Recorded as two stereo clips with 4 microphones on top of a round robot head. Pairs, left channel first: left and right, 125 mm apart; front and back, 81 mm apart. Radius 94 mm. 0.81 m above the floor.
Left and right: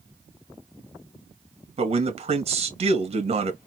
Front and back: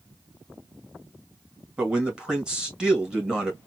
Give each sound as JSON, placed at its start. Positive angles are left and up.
{"t": 1.8, "sound": "a man speaking", "azimuth_deg": -100, "distance_m": 1.7}